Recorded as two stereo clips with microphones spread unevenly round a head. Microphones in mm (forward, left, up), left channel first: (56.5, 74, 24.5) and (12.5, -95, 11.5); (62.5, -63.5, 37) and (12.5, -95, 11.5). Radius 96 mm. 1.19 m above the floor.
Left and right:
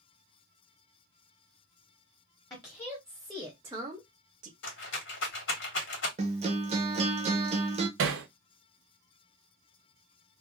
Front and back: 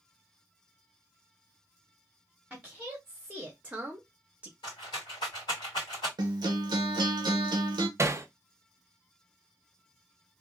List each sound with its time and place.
2.5 s a woman speaking: 145° left, 1.0 m; by 4.5 s 115° right, 0.7 m
4.6 s a rattle: 65° left, 1.9 m
6.2 s a guitar: 165° right, 0.5 m
8.0 s hammering: 105° right, 0.6 m